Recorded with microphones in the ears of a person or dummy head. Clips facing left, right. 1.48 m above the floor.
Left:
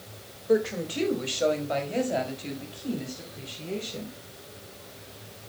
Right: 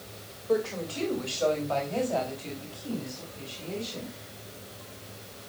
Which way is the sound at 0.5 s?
20° left (ahead or behind).